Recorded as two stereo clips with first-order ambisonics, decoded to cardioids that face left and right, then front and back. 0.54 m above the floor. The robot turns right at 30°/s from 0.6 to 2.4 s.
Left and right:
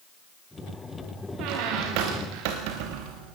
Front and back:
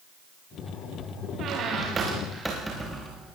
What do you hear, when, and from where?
1.4 s a squeak: 125° right, 4.5 m; by 3.4 s 95° right, 4.5 m